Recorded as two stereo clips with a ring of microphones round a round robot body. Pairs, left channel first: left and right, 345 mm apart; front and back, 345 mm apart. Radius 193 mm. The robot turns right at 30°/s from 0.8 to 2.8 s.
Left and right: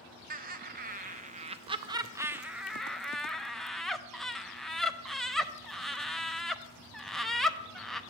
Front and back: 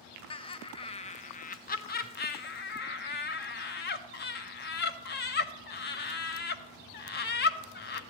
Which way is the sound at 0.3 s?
60° right.